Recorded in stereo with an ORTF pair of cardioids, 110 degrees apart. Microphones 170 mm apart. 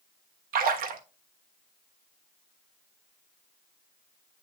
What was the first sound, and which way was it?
A splash, 60° right.